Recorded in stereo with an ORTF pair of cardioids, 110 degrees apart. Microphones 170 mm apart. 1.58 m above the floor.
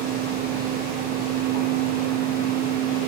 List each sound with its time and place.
0.0 s a fan: 60° right, 1.3 m